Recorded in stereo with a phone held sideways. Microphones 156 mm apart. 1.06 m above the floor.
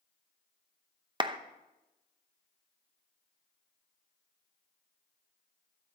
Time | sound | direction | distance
1.2 | a clap | 30° right (ahead or behind) | 0.8 m